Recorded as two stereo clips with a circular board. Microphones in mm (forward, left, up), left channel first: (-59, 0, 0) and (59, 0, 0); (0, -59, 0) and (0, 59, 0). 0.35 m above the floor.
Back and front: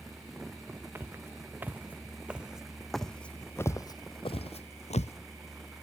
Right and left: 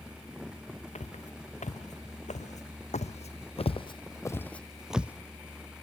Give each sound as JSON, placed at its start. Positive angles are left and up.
{"t": 0.9, "sound": "footsteps", "azimuth_deg": -70, "distance_m": 1.8}